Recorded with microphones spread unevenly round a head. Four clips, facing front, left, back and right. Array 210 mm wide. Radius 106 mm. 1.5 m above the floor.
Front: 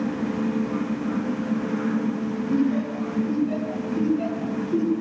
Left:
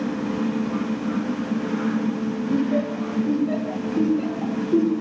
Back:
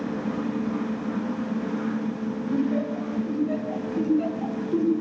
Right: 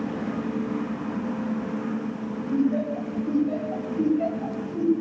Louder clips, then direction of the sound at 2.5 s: Even, front 2 dB; 75° left.